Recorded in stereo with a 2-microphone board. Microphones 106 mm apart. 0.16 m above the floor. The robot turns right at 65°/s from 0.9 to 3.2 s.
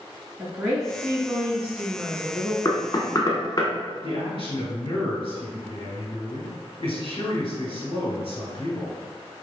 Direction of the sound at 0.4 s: 15° right (ahead or behind).